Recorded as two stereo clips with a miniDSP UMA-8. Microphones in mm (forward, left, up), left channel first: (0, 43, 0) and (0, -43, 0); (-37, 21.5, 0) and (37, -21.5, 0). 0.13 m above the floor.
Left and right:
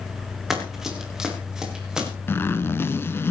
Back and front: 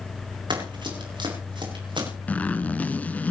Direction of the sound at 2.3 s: 100° left.